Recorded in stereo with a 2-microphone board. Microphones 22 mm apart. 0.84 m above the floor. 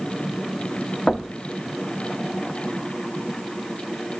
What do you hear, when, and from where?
1.1 s knocking: 35° left (ahead or behind), 0.8 m